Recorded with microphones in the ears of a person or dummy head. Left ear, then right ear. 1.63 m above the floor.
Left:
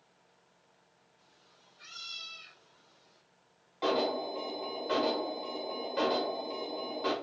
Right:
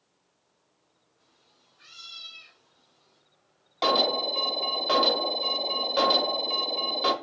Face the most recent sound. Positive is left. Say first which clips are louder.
# right 7 dB
turn(degrees=-50)  # may be behind; listen again after turning